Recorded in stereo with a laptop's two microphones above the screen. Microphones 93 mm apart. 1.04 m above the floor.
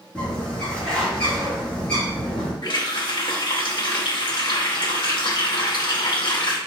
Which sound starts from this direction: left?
A running tap, at 2.6 s.